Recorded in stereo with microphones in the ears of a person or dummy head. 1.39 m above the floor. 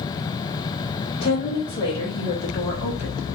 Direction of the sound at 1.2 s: 25° left (ahead or behind).